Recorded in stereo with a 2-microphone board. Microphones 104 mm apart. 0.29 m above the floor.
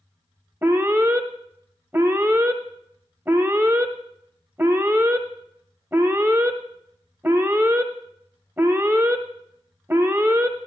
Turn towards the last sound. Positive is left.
turn(degrees=-25)  # may be behind; listen again after turning